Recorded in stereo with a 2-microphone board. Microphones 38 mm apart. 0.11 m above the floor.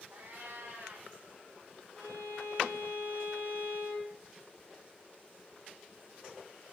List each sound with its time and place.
0.1 s a cat meowing: 70° right (ahead or behind), 2.5 m
2.0 s a violin: 80° left, 4.5 m